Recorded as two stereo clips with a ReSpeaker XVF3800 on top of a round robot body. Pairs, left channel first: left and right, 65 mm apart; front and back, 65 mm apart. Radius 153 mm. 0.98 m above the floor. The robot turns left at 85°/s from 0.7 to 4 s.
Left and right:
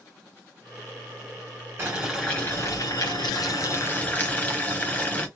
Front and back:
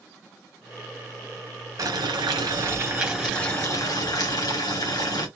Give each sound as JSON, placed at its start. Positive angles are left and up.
{"t": 1.8, "sound": "boiling", "azimuth_deg": -150, "distance_m": 2.5}